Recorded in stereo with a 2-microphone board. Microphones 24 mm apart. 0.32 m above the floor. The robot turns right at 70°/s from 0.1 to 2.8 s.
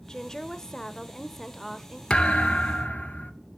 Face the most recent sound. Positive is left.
turn(degrees=85)